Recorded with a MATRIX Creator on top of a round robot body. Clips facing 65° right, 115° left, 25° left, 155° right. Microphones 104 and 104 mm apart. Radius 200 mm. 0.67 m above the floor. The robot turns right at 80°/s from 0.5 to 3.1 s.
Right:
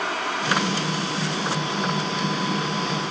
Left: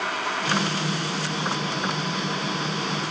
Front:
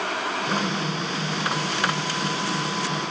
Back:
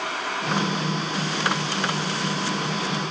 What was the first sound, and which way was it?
Only background noise.